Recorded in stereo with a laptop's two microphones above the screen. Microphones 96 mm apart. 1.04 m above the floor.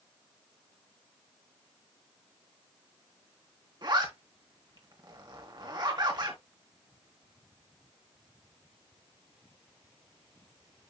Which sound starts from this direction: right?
A zipper, at 3.8 s.